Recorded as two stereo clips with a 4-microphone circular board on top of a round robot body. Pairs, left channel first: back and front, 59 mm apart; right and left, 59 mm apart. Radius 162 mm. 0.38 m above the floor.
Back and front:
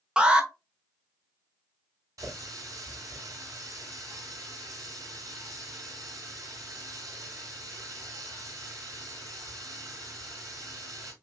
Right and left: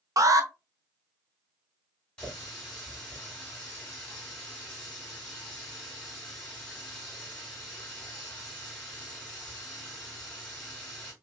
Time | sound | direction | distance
0.2 | an alarm | 75° left | 1.0 m
2.2 | a running tap | 20° right | 3 m